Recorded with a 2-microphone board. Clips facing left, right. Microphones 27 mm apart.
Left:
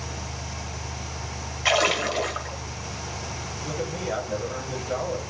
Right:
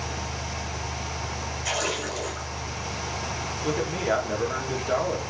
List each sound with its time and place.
1.6 s a splash: 45° left (ahead or behind), 1.6 m
3.6 s a man speaking: 65° right (ahead or behind), 2.5 m